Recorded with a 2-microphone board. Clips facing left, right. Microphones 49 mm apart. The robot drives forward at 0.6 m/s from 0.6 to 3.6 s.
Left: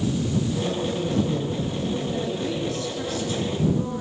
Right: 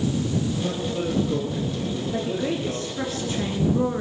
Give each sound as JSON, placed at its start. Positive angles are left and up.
{"t": 0.6, "sound": "a man speaking", "side_deg": -25, "distance_m": 3.5}
{"t": 2.1, "sound": "a woman speaking", "side_deg": -30, "distance_m": 3.0}